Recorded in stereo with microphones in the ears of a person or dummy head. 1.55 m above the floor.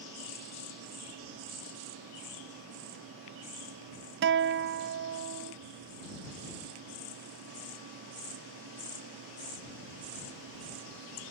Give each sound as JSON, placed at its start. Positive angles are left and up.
{"t": 4.2, "sound": "a guitar", "side_deg": -50}